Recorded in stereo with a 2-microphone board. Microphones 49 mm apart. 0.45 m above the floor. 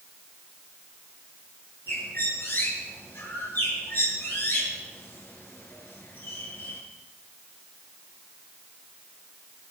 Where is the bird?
45° left (ahead or behind), 4.5 m.